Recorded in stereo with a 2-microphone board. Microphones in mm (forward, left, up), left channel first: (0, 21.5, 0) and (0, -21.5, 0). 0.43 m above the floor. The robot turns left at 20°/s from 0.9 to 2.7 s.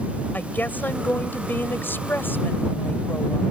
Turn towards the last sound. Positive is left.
turn(degrees=85)